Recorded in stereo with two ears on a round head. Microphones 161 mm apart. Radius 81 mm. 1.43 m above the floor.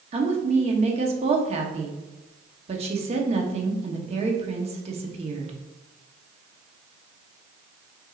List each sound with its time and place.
0.1 s a woman speaking: 35° right (ahead or behind), 0.8 m